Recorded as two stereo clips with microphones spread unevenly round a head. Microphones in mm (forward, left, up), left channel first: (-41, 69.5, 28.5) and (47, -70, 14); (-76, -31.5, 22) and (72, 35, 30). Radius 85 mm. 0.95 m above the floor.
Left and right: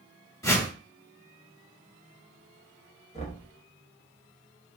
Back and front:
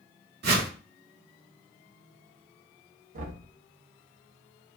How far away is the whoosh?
About 1.5 m.